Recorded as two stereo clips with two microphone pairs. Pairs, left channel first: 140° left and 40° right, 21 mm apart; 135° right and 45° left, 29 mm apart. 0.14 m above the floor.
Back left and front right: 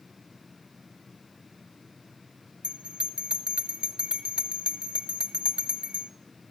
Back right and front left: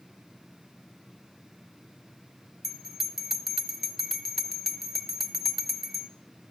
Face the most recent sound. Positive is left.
turn(degrees=-35)